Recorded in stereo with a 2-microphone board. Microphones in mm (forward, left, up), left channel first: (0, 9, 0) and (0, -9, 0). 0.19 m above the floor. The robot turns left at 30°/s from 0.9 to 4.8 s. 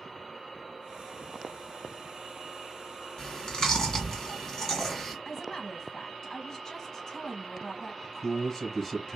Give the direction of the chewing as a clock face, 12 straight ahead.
9 o'clock.